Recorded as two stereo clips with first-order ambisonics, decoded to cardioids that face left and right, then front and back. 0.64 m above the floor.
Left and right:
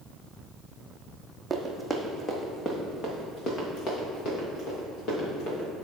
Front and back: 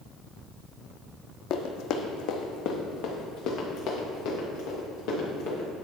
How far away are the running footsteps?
About 1.1 m.